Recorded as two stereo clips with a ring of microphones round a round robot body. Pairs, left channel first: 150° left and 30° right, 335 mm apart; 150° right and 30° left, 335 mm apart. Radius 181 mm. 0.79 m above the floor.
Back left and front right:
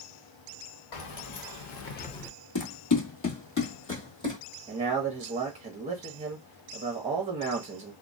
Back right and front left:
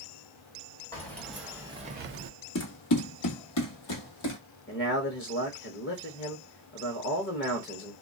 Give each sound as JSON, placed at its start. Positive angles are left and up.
{"t": 0.9, "sound": "keys jangling", "azimuth_deg": 125, "distance_m": 1.3}
{"t": 2.5, "sound": "running footsteps", "azimuth_deg": 175, "distance_m": 1.3}
{"t": 4.7, "sound": "a man speaking", "azimuth_deg": -100, "distance_m": 0.8}